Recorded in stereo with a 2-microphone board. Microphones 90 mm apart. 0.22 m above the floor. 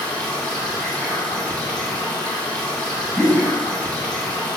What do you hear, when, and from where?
0.0 s running water: 5° left (ahead or behind), 1.9 m
3.1 s a whoosh: centre (ahead or behind), 0.9 m